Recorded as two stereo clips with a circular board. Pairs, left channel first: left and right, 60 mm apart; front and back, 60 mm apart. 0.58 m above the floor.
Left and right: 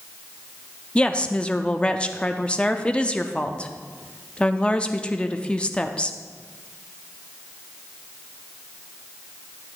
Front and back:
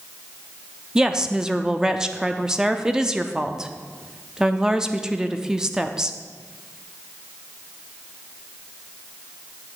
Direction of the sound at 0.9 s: 125° left.